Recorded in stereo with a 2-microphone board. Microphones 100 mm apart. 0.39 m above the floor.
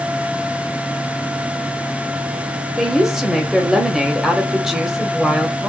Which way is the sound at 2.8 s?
5° right (ahead or behind).